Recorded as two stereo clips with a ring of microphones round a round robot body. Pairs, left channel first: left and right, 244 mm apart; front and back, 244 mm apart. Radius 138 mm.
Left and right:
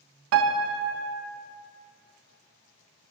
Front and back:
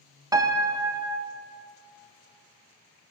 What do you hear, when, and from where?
0.3 s a piano: 105° right, 0.5 m